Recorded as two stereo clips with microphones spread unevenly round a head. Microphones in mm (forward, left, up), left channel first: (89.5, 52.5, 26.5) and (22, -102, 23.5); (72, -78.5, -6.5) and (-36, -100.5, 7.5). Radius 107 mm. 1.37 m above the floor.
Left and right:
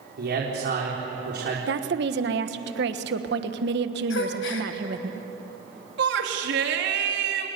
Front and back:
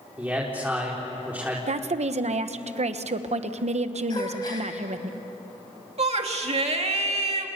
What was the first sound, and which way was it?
A man speaking, 95° right.